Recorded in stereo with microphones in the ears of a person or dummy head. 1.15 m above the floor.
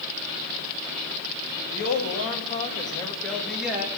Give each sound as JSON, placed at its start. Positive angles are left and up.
{"t": 1.7, "sound": "a woman speaking", "side_deg": 55, "distance_m": 2.0}